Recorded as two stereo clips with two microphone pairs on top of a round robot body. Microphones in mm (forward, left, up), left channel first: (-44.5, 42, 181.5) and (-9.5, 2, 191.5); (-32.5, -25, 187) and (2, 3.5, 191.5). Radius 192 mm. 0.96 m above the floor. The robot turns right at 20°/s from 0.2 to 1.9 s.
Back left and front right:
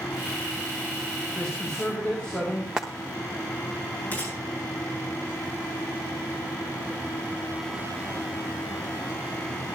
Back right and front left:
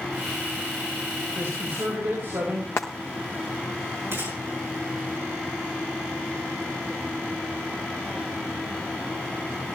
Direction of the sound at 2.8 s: 105° right.